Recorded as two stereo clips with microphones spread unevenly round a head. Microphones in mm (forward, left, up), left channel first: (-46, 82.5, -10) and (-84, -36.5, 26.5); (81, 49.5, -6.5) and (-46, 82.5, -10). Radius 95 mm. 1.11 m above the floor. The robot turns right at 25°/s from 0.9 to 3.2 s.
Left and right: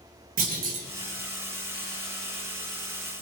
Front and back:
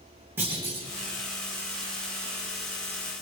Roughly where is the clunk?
Behind right.